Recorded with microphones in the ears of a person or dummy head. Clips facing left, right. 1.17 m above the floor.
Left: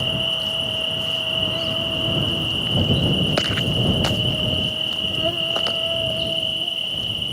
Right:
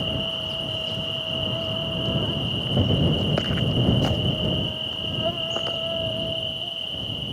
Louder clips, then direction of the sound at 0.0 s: Left 1 dB; 25° left (ahead or behind).